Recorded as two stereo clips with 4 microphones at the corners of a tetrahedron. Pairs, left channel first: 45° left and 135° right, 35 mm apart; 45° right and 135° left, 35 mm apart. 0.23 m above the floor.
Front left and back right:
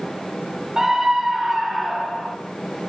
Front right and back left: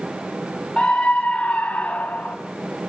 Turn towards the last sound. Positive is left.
turn(degrees=-20)